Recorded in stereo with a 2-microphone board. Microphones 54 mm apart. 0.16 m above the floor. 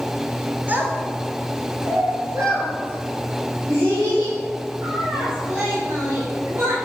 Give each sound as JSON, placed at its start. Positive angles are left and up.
{"t": 0.7, "sound": "a child speaking", "side_deg": -35, "distance_m": 1.3}